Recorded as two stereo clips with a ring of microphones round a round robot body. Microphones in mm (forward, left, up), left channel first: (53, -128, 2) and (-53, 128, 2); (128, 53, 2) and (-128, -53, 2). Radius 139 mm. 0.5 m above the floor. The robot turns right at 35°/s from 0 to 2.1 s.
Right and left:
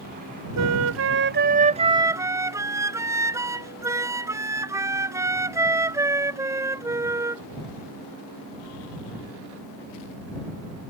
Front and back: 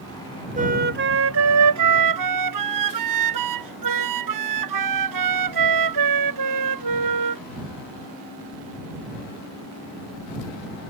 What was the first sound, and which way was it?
A flute, 140° left.